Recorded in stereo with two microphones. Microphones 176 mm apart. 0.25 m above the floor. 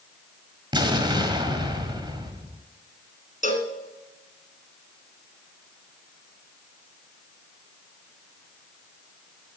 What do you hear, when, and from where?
0.7 s an explosion: 25° right (ahead or behind), 1.5 m
3.4 s a cowbell: 45° left (ahead or behind), 1.4 m